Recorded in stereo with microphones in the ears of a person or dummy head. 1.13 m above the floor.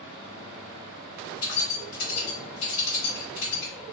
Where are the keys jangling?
75° left (ahead or behind), 1.8 m.